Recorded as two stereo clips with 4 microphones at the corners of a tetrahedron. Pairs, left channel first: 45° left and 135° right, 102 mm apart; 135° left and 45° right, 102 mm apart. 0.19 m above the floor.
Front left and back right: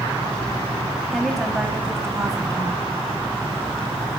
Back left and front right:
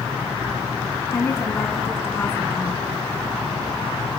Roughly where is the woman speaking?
Behind left.